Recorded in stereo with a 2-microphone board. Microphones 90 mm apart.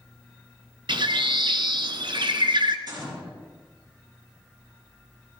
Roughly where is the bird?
Right.